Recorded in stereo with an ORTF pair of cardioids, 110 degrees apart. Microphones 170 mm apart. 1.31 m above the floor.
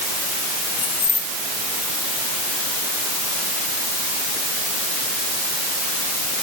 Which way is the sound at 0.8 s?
55° left.